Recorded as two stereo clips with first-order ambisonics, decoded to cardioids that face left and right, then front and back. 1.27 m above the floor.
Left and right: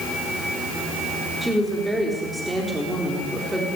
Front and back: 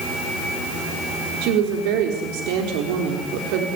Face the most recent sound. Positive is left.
turn(degrees=-175)